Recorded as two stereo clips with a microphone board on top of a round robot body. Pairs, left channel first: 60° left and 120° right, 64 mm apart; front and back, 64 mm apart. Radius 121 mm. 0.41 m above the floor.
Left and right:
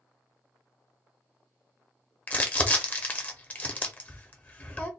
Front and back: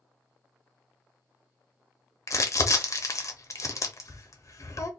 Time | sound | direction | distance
2.3 | crumpling | 5° left | 1.1 m